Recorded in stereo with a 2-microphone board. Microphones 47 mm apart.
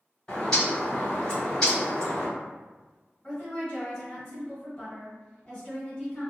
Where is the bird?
15° left (ahead or behind), 1.7 m.